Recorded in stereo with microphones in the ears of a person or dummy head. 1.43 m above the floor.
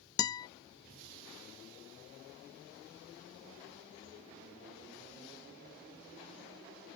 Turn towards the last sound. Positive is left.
turn(degrees=20)  # may be behind; listen again after turning